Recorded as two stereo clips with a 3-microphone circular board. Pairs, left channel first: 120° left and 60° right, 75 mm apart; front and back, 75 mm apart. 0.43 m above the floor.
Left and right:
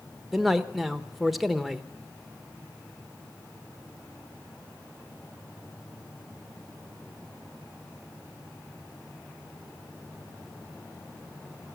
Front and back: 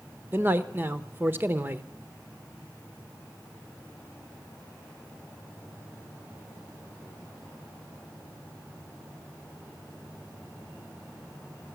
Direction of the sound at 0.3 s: 150° right.